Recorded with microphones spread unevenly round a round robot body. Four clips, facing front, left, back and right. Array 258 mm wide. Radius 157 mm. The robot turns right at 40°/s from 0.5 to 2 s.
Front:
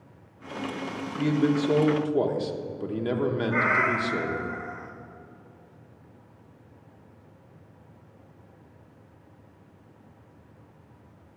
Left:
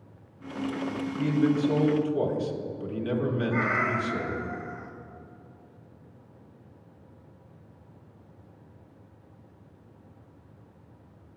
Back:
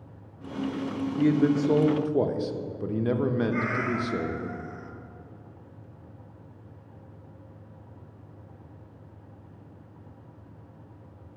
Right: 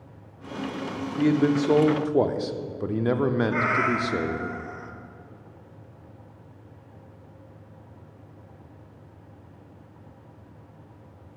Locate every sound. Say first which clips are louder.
1.2 s a man speaking: right 3 dB, back 1 dB; 105° right, 0.8 m; by 4.5 s 75° right, 0.8 m
3.5 s a cat meowing: right 3 dB, front 3 dB; 35° right, 1.1 m